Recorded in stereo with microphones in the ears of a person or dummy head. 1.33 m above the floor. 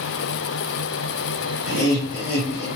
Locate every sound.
1.6 s laughter: 35° left (ahead or behind), 1.3 m; by 2.7 s 60° left (ahead or behind), 1.0 m